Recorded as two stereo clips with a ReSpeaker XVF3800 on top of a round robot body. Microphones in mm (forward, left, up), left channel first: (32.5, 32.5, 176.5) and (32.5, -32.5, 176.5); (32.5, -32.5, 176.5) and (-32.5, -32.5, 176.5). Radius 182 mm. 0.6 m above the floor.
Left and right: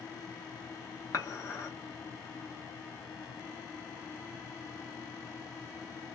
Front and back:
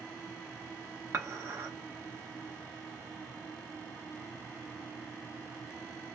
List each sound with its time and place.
1.1 s dishes clattering: 130° left, 1.0 m